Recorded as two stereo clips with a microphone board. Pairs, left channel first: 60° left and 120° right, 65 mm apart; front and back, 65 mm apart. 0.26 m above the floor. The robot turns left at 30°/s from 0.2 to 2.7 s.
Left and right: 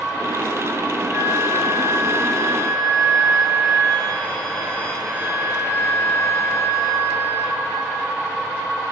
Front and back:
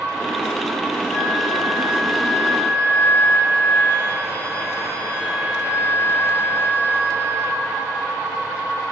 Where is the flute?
85° right, 3 m; by 8.1 s 135° right, 3 m.